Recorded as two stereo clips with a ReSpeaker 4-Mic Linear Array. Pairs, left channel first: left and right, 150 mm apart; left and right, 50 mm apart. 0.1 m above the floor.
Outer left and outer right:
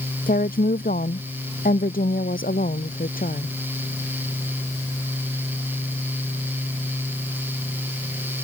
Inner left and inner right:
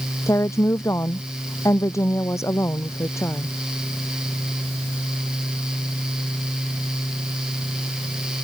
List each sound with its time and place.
0.3 s a woman speaking: 75° left (ahead or behind)